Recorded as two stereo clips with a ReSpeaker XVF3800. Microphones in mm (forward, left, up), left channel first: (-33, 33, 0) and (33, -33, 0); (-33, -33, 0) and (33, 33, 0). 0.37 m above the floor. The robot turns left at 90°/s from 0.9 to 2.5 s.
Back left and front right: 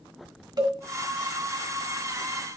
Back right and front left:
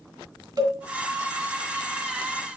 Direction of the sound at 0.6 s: Straight ahead.